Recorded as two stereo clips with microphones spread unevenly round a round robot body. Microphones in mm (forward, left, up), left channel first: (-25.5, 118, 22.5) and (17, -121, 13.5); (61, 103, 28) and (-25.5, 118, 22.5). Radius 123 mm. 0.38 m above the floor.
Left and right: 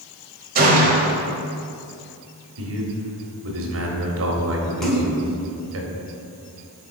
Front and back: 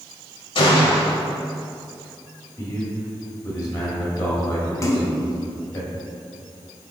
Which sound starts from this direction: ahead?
A splash, at 4.8 s.